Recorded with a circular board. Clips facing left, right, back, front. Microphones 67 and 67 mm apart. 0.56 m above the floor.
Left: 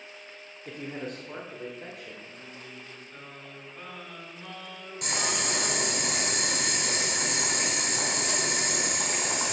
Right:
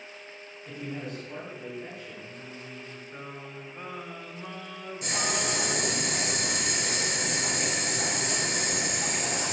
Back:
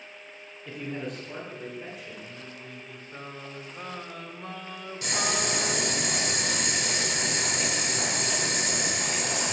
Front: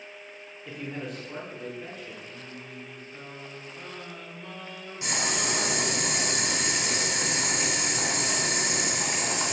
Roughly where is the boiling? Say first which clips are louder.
Right 1 dB, back 1 dB; left.